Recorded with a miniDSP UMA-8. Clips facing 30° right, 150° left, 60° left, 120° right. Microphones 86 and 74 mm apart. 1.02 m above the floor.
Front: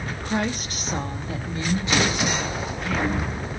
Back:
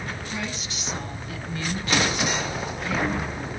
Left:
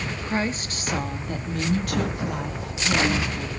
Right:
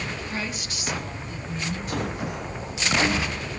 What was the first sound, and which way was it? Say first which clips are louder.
A woman speaking: front 7 dB, left 5 dB; 5° left.